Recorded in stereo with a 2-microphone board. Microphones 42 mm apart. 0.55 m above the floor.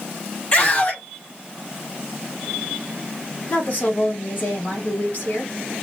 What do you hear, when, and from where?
0.5 s a scream: 35° left (ahead or behind), 2.5 m
3.5 s a woman speaking: 45° left (ahead or behind), 3 m